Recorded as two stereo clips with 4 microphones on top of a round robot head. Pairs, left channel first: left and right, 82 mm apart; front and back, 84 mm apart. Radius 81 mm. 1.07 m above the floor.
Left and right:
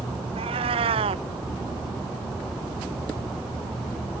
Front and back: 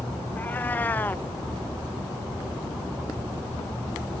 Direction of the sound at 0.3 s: 75° right.